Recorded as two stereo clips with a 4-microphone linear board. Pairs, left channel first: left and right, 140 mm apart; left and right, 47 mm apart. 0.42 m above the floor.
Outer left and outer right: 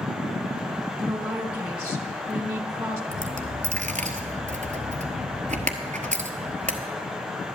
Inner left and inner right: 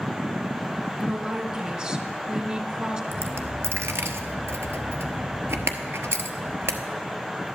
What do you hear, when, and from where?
1.0 s a woman speaking: 25° right (ahead or behind), 1.9 m
3.1 s a dropped coin: 65° right (ahead or behind), 1.0 m